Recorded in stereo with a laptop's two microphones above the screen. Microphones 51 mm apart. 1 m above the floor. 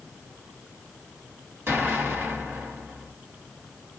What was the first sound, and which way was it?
An explosion, 45° right (ahead or behind).